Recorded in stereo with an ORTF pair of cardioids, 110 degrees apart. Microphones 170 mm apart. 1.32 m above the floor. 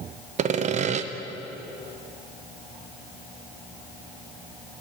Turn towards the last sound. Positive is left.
turn(degrees=-45)